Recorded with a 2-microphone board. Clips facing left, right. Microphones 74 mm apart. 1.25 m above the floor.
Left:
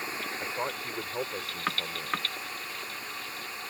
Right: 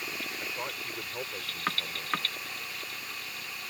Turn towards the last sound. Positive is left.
turn(degrees=20)  # may be behind; listen again after turning